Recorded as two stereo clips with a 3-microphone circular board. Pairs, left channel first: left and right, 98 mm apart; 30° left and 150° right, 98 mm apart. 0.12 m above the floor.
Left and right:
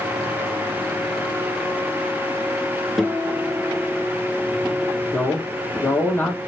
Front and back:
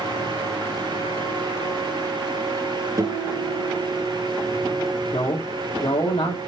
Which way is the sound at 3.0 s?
Straight behind.